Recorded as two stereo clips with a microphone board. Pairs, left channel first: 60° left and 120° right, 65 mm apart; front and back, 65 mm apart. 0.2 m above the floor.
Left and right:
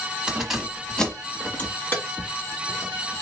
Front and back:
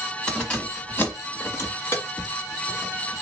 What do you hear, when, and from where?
0.3 s keys jangling: 65° right, 1.0 m; by 3.2 s 40° left, 1.9 m